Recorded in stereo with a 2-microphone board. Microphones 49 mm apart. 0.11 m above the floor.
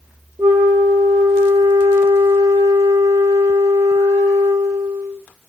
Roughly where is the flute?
Right.